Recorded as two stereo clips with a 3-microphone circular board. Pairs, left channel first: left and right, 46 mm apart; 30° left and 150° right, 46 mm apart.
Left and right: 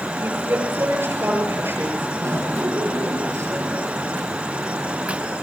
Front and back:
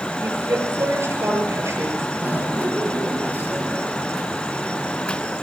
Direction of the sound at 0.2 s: 125° right.